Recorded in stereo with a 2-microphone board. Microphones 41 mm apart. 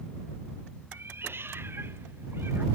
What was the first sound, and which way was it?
A cat meowing, 60° right (ahead or behind).